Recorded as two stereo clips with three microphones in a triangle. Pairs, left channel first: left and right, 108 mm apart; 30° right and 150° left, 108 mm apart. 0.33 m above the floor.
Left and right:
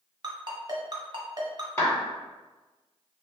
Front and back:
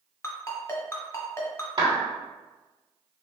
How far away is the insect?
No insect in this recording.